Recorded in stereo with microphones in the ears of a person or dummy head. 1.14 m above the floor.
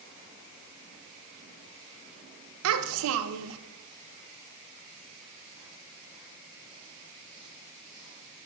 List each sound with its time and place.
2.6 s a child speaking: 75° right (ahead or behind), 0.6 m